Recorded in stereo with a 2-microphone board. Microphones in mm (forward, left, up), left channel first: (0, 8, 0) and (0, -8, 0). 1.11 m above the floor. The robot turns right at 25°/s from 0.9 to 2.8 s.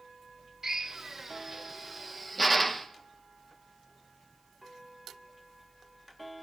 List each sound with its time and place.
0.6 s a drill: 30° right (ahead or behind), 1.0 m; by 2.9 s 10° left (ahead or behind), 1.0 m